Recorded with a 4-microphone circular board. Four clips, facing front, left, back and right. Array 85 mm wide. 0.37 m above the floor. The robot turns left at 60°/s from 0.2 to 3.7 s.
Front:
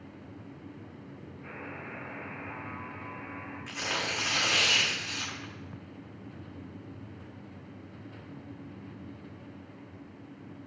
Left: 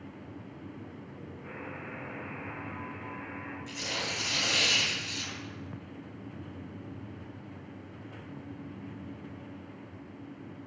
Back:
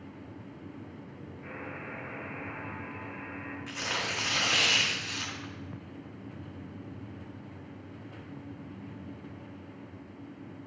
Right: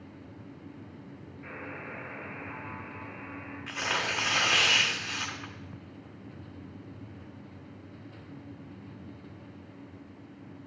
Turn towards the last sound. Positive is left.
turn(degrees=-90)